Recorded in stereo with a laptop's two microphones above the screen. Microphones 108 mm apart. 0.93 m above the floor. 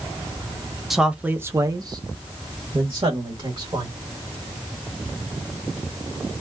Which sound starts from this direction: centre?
A man speaking, at 0.9 s.